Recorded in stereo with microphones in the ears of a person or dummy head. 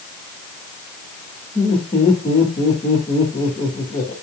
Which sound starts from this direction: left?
Laughter, at 1.6 s.